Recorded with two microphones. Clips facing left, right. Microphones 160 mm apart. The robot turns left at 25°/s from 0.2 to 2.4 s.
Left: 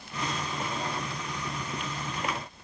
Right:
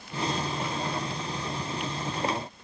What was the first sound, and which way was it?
Only background noise.